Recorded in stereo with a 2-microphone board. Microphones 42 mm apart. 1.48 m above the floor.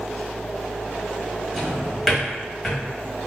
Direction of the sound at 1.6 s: 10° left (ahead or behind).